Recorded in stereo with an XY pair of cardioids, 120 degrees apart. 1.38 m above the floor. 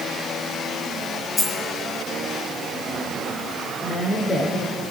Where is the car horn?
No car horn in this recording.